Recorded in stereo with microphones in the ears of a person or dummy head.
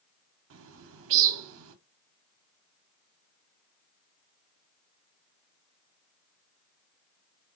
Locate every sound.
0.5 s a bird: 70° right (ahead or behind), 0.6 m